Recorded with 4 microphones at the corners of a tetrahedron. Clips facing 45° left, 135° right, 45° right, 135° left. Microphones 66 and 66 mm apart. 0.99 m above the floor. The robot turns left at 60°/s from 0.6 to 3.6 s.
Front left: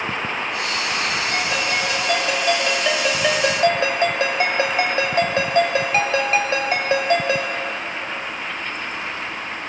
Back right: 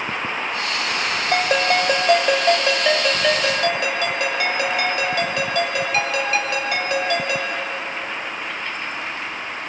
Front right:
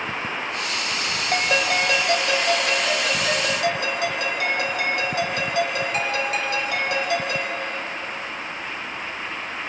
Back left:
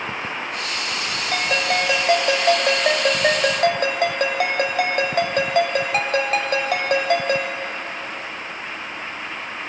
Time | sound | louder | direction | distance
1.3 | a ringtone | back right 4 dB, even | 120° right | 1.7 m